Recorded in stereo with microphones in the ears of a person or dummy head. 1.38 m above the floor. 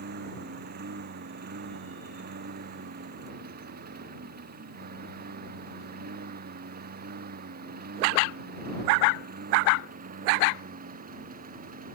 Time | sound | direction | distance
0.0 | a lawn mower | 45° right (ahead or behind) | ?